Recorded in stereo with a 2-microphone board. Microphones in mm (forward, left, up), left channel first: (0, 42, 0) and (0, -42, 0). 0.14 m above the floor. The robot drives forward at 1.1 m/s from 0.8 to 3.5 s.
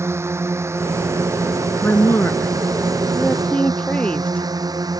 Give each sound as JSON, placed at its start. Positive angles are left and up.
{"t": 0.0, "sound": "a drone", "side_deg": -30}
{"t": 1.8, "sound": "a woman speaking", "side_deg": 25}